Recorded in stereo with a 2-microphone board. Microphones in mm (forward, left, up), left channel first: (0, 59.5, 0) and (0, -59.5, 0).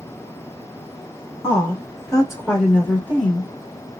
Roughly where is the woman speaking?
Left.